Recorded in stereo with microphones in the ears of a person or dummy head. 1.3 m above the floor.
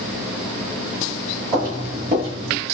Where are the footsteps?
15° right (ahead or behind), 1.7 m; by 2.6 s 10° right (ahead or behind), 1.4 m.